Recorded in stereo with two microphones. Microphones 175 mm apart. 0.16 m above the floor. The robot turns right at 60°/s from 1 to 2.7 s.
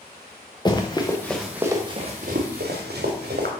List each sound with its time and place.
0.7 s running footsteps: 25° left (ahead or behind), 1.1 m; by 3.5 s 80° right, 2.5 m